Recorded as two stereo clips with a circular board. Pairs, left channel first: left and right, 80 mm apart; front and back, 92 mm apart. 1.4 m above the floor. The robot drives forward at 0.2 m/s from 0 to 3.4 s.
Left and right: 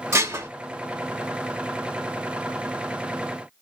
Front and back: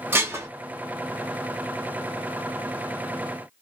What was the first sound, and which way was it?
Dishes clattering, 125° right.